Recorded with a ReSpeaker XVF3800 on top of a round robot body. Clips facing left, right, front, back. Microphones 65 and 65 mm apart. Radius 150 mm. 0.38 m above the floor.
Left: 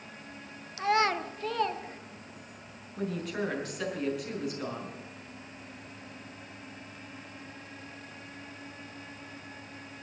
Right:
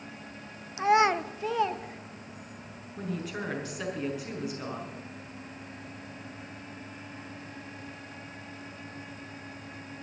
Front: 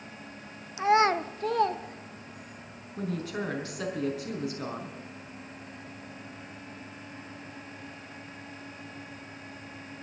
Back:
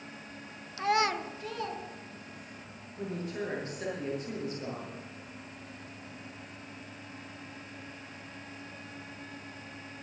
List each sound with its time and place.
0.8 s a child speaking: 55° right, 0.9 m; by 2.6 s 5° right, 2.5 m
3.0 s a woman speaking: 5° right, 4.5 m